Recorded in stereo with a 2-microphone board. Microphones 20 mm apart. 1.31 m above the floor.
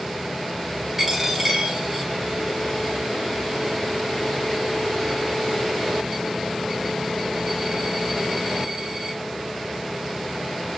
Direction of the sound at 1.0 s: 20° right (ahead or behind).